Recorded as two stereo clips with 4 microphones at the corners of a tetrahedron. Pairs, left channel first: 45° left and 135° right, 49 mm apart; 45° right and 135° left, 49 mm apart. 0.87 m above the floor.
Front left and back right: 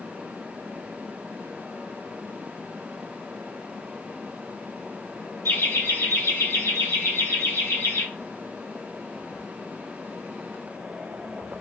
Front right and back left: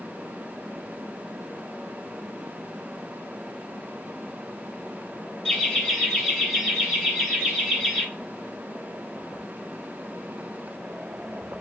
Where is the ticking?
I don't hear ticking.